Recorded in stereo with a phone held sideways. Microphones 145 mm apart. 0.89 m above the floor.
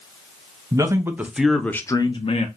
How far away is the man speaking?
About 0.8 m.